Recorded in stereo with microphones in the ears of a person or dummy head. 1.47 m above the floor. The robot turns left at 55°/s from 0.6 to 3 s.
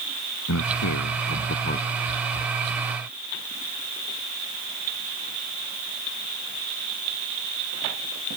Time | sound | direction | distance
0.5 | a man speaking | 100° left | ?